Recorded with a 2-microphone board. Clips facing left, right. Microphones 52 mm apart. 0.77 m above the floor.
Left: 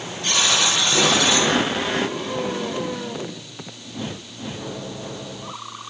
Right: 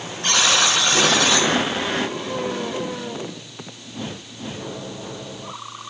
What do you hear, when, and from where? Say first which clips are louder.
0.2 s a buzzer: right 2 dB; 50° right (ahead or behind), 5 m